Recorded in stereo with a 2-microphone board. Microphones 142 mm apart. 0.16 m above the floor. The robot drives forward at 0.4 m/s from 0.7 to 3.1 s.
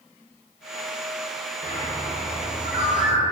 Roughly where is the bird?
Left.